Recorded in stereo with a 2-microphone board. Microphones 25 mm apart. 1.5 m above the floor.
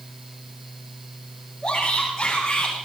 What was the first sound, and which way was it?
A shout, 20° left (ahead or behind).